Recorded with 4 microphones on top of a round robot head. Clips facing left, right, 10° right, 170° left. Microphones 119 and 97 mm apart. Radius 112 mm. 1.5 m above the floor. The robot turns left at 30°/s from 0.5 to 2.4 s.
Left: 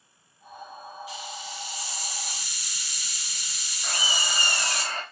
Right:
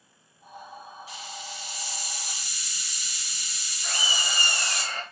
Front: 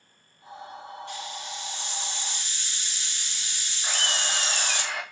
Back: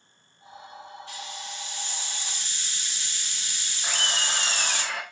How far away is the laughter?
About 2.5 m.